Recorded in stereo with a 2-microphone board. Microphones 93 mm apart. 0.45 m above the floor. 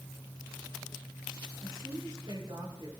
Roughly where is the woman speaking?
Right.